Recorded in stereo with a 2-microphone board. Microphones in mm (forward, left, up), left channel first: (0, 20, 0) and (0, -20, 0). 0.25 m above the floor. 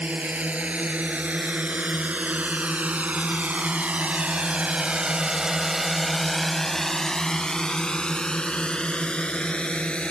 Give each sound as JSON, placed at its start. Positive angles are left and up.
{"t": 0.0, "sound": "a drone", "side_deg": -35}